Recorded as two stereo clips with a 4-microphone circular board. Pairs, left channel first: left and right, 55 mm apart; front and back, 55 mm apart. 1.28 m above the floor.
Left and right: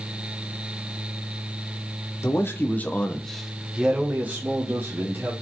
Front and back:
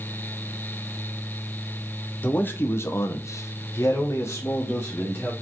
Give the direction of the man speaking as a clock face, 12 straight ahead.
10 o'clock.